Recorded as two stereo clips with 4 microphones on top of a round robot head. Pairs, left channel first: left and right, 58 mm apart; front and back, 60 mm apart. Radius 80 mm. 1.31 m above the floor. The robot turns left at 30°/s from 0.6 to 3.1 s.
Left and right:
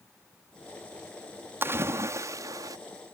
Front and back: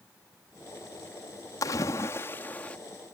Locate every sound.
1.6 s a splash: 40° right; by 2.8 s 75° right